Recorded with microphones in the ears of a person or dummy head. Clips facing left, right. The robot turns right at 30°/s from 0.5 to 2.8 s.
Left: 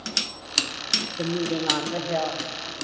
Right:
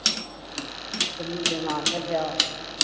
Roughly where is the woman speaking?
Behind left.